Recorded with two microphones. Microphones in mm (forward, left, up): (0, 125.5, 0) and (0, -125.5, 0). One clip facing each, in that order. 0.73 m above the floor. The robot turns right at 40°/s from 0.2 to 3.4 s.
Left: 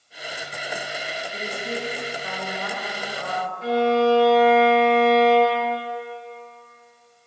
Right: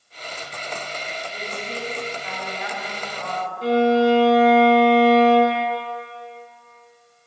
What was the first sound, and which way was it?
A woman speaking, 60° left.